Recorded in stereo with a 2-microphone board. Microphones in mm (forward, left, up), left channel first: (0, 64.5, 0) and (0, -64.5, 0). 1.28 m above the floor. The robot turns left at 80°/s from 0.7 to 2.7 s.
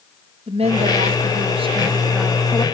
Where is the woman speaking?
60° right, 1.9 m; by 2.6 s 145° left, 1.9 m.